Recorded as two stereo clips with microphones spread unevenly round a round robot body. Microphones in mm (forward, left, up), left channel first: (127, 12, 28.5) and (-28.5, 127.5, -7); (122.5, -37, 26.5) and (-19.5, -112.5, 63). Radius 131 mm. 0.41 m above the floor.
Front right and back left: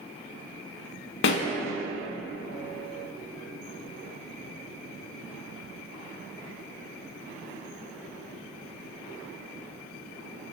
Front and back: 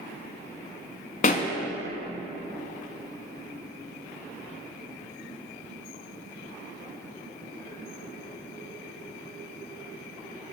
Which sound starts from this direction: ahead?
A pop, at 1.2 s.